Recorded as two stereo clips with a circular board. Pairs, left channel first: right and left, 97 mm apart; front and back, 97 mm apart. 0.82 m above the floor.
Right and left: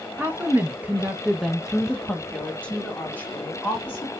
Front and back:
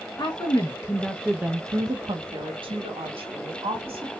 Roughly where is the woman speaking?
Ahead left.